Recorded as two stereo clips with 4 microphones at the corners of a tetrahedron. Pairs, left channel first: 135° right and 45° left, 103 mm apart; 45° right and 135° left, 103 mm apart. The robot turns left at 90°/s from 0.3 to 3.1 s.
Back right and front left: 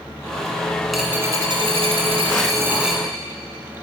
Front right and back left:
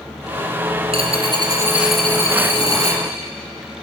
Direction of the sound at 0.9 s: 135° left.